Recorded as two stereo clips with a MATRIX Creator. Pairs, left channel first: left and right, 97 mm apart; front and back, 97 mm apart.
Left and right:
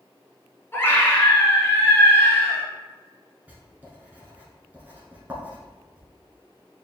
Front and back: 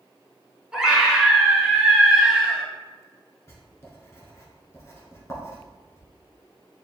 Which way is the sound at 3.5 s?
30° right.